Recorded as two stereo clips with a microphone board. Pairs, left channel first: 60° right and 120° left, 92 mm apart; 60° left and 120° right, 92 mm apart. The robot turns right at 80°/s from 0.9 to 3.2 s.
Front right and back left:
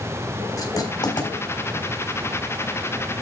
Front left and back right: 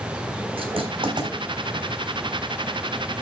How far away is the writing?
About 4 m.